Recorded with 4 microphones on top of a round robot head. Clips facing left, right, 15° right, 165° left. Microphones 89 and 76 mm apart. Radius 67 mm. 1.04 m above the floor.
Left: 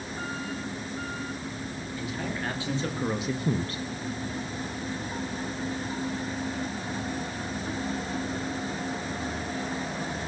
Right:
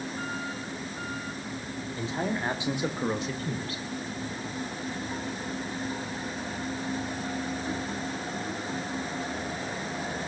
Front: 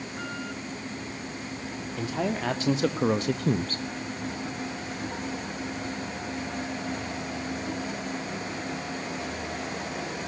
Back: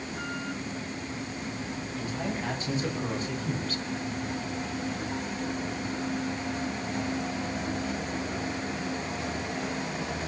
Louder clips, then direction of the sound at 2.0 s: Right 3 dB, front 5 dB; 25° right.